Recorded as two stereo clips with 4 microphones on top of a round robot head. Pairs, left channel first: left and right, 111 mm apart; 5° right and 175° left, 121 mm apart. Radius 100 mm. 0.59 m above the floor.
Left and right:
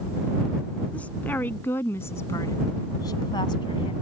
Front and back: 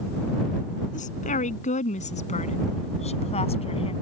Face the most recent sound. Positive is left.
turn(degrees=35)